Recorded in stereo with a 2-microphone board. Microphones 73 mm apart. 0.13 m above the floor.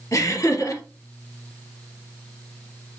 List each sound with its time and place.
0.1 s laughter: 45° left (ahead or behind), 3 m